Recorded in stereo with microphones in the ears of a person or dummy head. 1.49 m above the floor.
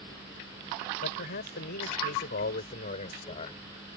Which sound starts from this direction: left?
A man speaking, at 1.0 s.